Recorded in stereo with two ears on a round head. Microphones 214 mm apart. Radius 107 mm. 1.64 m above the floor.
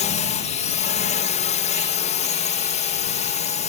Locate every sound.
0.0 s a drone: 30° left (ahead or behind)